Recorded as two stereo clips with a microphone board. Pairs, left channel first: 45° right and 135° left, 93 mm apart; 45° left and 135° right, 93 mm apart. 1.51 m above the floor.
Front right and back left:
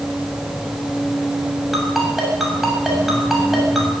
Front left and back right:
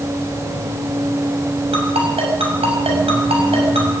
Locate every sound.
1.7 s a ringtone: 140° right, 6 m